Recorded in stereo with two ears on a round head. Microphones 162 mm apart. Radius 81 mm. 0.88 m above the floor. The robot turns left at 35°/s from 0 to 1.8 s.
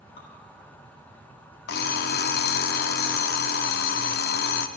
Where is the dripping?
50° left (ahead or behind), 3 m; by 0.3 s 55° left (ahead or behind), 3 m.